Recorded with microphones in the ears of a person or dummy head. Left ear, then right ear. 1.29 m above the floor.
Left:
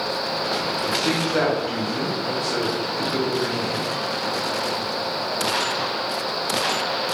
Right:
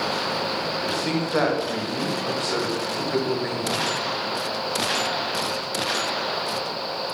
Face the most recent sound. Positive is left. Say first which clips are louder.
# left 3 dB
turn(degrees=-10)  # may be behind; listen again after turning